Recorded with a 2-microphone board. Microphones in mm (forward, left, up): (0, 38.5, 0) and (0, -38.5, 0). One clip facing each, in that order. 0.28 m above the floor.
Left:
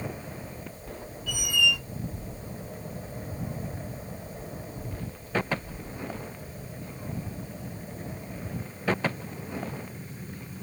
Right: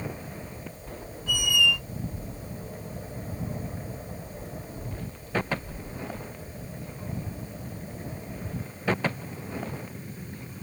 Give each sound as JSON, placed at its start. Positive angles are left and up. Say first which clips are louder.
{"t": 1.3, "sound": "a squeak", "louder": "right 2 dB", "side_deg": -35, "distance_m": 1.7}